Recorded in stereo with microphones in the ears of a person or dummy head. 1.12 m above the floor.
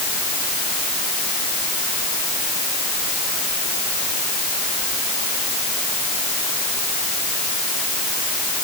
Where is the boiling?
I don't hear boiling.